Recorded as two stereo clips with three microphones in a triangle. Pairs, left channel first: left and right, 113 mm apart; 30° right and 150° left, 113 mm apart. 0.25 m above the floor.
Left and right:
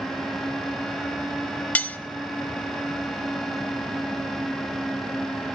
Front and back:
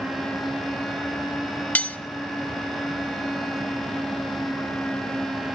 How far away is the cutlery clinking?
About 0.6 m.